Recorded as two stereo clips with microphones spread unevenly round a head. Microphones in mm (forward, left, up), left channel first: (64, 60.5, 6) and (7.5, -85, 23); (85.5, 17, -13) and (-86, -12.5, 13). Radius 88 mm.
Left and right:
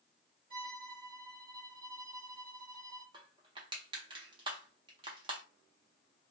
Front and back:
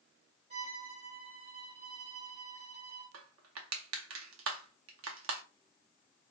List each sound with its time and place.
0.5 s a violin: 125° right, 1.6 m
3.1 s crushing: 175° right, 0.6 m